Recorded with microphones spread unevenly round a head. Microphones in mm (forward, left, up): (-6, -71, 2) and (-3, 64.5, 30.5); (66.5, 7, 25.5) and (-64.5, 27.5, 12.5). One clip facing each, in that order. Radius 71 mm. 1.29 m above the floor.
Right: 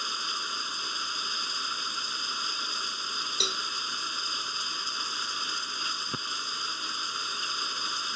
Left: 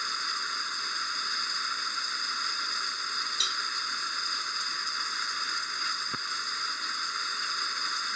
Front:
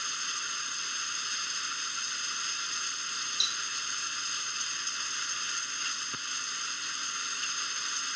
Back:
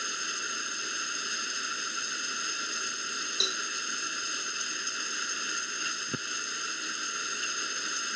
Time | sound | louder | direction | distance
0.0 | running water | even, back 3 dB | 170° right | ?
3.4 | a cowbell | right 3 dB, back 6 dB | 145° right | ?